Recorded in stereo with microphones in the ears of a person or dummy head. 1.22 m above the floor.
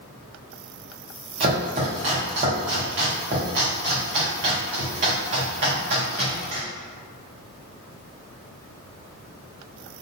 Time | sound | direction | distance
1.4 | chopping | 30° right (ahead or behind) | 0.8 m